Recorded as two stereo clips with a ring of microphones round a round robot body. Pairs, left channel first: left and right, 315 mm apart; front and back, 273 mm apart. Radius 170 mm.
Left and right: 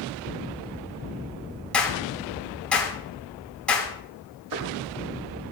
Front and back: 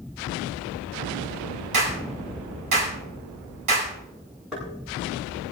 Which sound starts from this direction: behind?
A clap, at 1.7 s.